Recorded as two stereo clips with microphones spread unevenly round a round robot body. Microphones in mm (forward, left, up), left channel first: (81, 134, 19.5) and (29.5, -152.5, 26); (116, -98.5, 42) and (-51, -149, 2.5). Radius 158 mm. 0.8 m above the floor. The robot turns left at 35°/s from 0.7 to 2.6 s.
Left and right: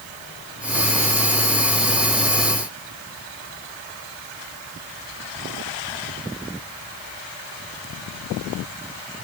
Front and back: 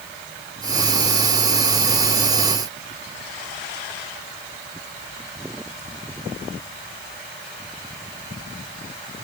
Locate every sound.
Only background noise.